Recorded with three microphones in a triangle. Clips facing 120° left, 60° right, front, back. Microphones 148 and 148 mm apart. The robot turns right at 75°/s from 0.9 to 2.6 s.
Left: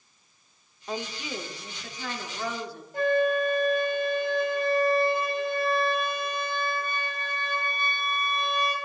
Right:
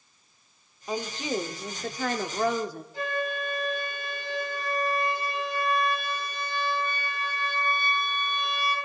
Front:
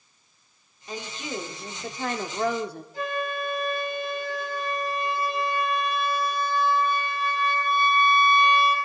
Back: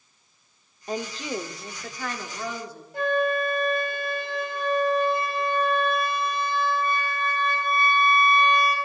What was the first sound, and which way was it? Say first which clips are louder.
A woman speaking: right 4 dB, back 4 dB; 145° right.